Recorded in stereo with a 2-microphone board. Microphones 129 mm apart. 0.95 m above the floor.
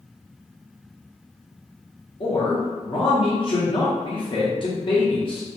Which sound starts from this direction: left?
A man speaking, at 2.2 s.